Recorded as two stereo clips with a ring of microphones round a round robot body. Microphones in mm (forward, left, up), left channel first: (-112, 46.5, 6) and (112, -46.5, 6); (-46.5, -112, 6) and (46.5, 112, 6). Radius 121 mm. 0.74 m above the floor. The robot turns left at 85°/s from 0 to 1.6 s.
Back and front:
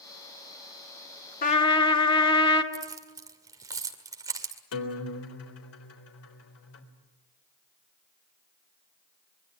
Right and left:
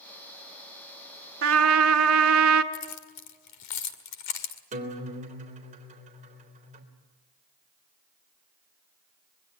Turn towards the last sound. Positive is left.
turn(degrees=130)